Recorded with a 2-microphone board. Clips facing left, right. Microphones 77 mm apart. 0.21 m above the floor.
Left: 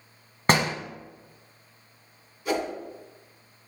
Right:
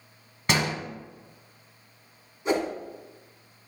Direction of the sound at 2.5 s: 25° right (ahead or behind).